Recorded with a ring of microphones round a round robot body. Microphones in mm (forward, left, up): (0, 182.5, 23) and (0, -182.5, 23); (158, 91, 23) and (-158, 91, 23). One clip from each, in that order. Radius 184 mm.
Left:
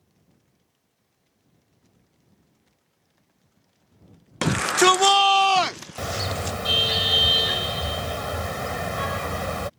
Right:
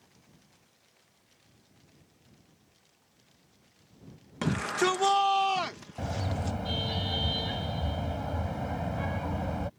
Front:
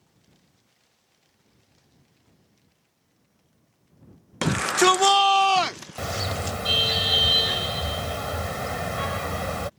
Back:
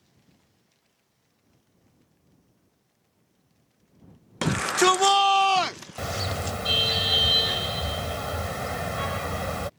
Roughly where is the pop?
No pop in this recording.